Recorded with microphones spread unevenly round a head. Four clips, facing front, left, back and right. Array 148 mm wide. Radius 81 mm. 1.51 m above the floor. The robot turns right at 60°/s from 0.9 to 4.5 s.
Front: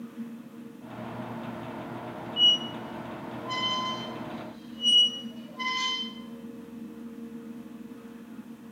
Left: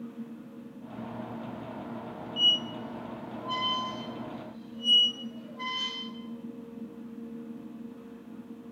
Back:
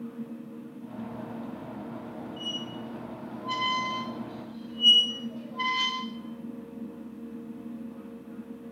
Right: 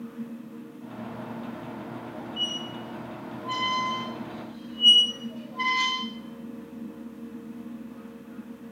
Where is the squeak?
100° left, 0.7 m; by 6.0 s 130° right, 0.7 m.